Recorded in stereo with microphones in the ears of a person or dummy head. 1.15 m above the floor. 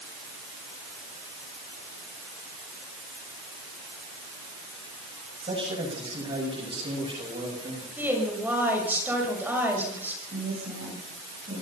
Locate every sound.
5.4 s a man speaking: 35° right (ahead or behind), 7.5 m
8.0 s a woman speaking: 5° right (ahead or behind), 6.5 m
10.3 s a woman speaking: 45° right (ahead or behind), 7.5 m